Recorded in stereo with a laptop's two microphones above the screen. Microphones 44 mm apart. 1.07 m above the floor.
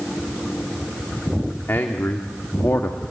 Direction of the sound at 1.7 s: 55° left (ahead or behind).